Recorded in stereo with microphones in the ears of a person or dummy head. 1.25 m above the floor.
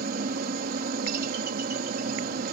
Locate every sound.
0.0 s a helicopter: 50° right (ahead or behind)